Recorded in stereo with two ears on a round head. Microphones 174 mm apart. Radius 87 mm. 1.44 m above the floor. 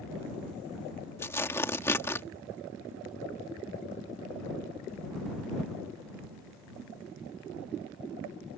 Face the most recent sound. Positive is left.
turn(degrees=15)  # may be behind; listen again after turning